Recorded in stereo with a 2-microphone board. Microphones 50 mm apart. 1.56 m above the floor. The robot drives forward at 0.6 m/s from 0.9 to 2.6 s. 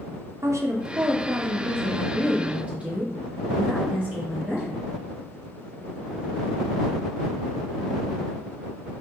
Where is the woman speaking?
80° right, 0.6 m; by 4.8 s 35° right (ahead or behind), 1.1 m.